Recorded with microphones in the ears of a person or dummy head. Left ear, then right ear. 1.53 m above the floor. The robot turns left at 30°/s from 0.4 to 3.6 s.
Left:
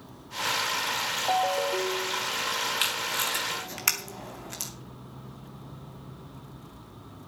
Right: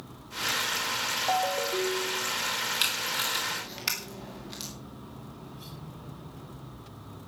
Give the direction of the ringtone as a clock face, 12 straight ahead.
12 o'clock.